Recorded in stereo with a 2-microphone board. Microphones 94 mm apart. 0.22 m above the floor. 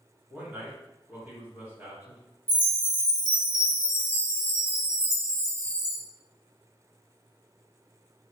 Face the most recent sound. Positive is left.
turn(degrees=-20)  # may be behind; listen again after turning